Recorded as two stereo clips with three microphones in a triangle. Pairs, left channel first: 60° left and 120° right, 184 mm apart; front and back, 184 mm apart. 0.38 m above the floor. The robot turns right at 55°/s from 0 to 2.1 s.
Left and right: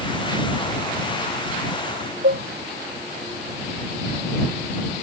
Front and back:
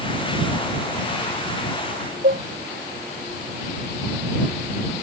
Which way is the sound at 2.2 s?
145° right.